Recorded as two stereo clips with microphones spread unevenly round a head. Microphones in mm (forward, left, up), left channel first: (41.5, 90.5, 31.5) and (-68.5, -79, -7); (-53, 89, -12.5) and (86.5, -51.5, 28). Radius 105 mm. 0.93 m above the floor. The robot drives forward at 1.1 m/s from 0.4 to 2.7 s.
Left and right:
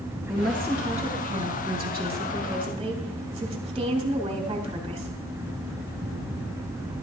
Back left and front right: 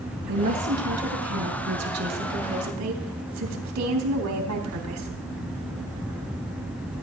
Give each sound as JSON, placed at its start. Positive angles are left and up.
{"t": 0.3, "sound": "a woman speaking", "azimuth_deg": -35, "distance_m": 5.5}